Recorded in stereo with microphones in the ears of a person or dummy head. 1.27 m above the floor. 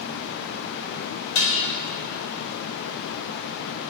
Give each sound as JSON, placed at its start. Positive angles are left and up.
{"t": 1.4, "sound": "dishes clattering", "side_deg": 80, "distance_m": 4.0}